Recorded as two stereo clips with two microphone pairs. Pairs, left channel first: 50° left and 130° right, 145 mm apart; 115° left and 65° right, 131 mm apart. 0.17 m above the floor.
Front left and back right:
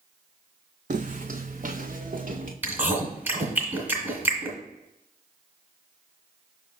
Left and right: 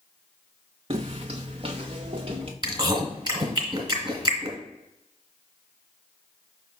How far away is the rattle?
No rattle in this recording.